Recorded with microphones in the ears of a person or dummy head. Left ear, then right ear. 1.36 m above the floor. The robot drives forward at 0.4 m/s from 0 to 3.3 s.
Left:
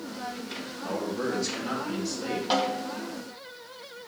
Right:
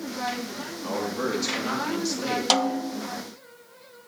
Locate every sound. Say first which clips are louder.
0.8 s a man speaking: right 2 dB; 30° right (ahead or behind), 2.5 m; by 2.4 s 40° right (ahead or behind), 2.0 m
2.5 s a snare drum: right 3 dB; 75° right (ahead or behind), 0.6 m; by 3.1 s 60° right (ahead or behind), 0.7 m